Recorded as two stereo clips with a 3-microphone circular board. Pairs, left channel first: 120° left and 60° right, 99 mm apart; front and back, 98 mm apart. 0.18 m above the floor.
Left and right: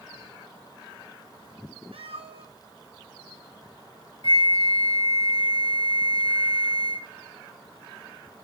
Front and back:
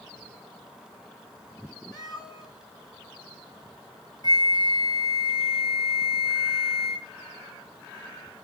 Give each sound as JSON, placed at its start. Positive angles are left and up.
{"t": 1.9, "sound": "a cat meowing", "azimuth_deg": -50, "distance_m": 2.0}
{"t": 4.2, "sound": "a flute", "azimuth_deg": 140, "distance_m": 1.8}